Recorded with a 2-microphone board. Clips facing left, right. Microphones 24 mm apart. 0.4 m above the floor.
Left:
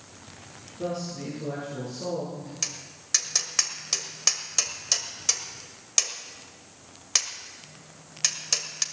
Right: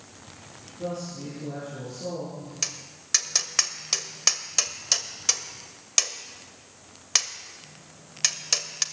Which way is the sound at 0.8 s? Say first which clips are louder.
Left 1 dB; 20° left (ahead or behind).